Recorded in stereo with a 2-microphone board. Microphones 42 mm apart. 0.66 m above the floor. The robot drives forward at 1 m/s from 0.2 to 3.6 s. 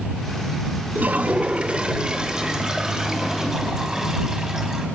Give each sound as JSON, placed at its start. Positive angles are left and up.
{"t": 0.9, "sound": "a toilet flushing", "side_deg": -45, "distance_m": 1.0}